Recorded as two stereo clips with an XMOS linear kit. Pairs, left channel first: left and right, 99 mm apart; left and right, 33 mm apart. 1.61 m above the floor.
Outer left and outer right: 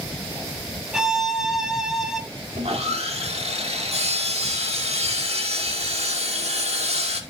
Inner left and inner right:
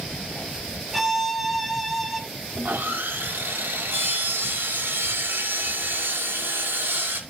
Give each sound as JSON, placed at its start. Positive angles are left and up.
{"t": 0.9, "sound": "a violin", "side_deg": -5, "distance_m": 1.4}
{"t": 2.5, "sound": "sawing", "side_deg": -90, "distance_m": 2.5}